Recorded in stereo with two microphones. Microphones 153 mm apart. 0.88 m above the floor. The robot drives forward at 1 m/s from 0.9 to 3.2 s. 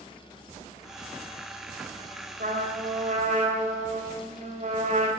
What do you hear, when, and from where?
2.4 s a trumpet: 70° right (ahead or behind), 3 m; by 5.1 s 55° right (ahead or behind), 3.5 m